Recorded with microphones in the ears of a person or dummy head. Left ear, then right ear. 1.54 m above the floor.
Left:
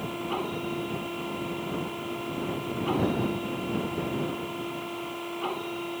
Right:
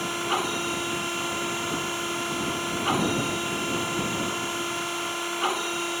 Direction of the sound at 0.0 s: 55° right (ahead or behind).